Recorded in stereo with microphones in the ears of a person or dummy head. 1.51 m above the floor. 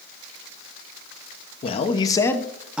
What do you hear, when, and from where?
1.6 s a man speaking: 35° left (ahead or behind), 1.0 m; by 2.8 s 10° right (ahead or behind), 0.8 m